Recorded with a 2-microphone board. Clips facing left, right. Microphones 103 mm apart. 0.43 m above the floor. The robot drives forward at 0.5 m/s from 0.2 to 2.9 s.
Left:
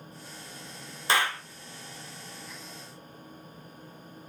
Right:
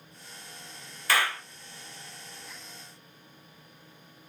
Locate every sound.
1.1 s a clap: 25° left (ahead or behind), 0.7 m